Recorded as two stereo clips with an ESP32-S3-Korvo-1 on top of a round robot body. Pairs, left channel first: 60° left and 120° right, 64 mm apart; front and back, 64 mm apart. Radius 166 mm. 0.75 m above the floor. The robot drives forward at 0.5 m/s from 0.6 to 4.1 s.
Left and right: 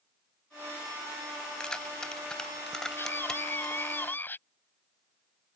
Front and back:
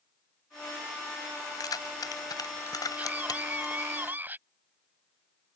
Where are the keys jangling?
15° right; by 3.8 s 25° right.